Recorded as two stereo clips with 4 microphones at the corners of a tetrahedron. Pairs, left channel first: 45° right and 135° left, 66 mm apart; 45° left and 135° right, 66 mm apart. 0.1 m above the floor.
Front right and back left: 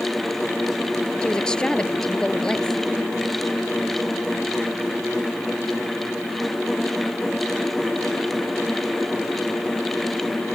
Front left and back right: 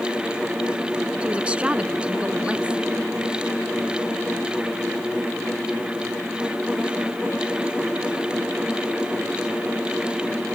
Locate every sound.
1.2 s a woman speaking: 100° right